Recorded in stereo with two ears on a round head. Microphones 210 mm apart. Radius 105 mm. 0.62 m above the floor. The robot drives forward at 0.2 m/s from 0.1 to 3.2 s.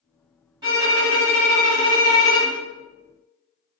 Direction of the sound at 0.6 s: 20° right (ahead or behind).